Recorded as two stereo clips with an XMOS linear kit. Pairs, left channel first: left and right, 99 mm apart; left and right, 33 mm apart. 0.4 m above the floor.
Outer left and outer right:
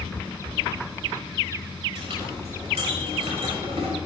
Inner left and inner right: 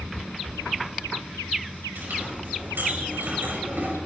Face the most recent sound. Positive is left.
turn(degrees=-85)